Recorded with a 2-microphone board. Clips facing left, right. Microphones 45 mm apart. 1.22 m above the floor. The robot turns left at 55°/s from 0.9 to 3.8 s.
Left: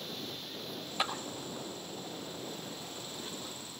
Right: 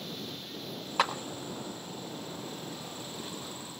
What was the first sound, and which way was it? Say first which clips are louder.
A clap: right 6 dB; 80° right.